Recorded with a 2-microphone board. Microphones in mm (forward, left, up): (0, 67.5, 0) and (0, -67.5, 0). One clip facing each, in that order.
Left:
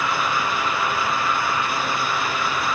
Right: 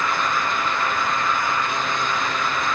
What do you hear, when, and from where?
Only background noise.